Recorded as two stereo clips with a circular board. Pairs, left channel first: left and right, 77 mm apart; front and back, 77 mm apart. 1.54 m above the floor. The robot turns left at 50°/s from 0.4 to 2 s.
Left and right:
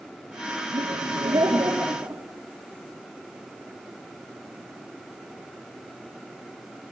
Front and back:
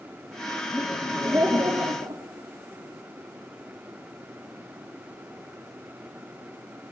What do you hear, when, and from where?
0.7 s laughter: 85° right, 4.5 m; by 2.2 s 150° right, 4.5 m